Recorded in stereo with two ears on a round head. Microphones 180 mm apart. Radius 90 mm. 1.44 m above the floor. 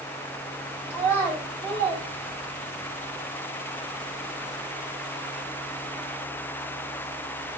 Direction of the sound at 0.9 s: 15° left (ahead or behind).